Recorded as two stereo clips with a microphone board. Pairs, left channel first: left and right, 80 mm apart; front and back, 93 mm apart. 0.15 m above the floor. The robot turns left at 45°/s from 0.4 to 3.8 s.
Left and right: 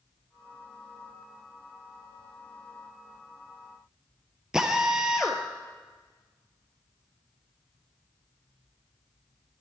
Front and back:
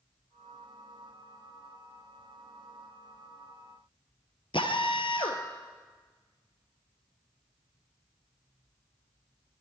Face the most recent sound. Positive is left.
turn(degrees=-10)